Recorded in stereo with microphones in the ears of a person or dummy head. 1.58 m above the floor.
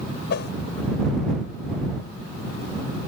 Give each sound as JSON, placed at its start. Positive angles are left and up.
{"t": 0.3, "sound": "a whoosh", "side_deg": 60}